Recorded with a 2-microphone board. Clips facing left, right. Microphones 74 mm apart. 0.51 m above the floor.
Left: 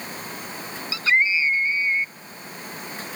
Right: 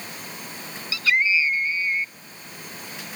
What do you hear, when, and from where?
0.9 s a scream: 30° left (ahead or behind)